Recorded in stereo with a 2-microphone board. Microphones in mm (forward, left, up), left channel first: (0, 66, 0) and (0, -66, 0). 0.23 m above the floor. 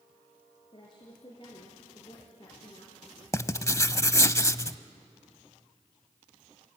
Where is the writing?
25° left (ahead or behind), 0.6 m.